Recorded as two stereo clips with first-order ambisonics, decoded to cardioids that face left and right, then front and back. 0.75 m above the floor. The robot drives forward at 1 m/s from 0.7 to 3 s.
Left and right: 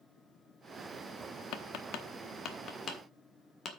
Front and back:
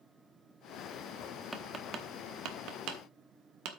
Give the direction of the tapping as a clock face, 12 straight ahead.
9 o'clock.